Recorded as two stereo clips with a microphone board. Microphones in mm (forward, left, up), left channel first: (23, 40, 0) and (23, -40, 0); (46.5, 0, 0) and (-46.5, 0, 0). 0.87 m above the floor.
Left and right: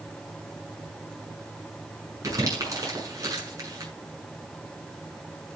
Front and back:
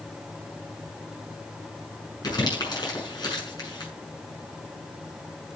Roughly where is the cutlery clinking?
No cutlery clinking in this recording.